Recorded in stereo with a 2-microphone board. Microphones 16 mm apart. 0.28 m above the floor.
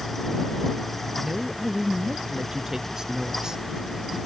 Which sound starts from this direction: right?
A woman speaking, at 1.2 s.